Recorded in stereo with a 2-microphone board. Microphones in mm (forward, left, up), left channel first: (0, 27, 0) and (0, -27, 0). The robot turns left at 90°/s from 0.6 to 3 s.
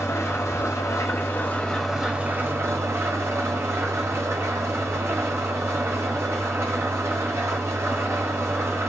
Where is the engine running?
115° left, 0.9 m; by 8.9 s 105° right, 0.9 m.